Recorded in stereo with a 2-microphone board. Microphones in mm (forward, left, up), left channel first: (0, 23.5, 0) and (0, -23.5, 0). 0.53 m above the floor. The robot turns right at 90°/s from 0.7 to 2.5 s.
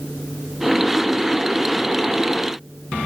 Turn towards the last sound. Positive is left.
No sound to turn to.